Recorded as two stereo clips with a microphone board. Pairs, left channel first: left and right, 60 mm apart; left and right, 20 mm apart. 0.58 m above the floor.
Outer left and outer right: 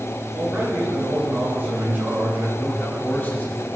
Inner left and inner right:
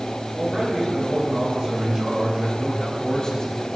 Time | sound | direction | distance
0.3 | a man speaking | 30° right (ahead or behind) | 7 m
2.6 | a man speaking | 25° left (ahead or behind) | 1.7 m